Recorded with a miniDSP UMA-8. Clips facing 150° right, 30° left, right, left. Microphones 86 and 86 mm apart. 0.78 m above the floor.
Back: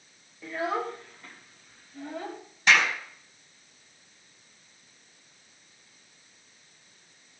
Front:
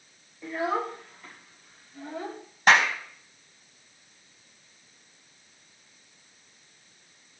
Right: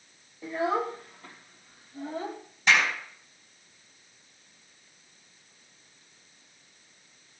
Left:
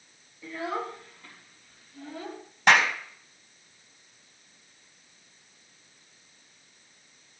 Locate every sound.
0.4 s a child speaking: 55° right, 1.7 m; by 2.4 s 65° right, 2.5 m
2.7 s a clap: 65° left, 4 m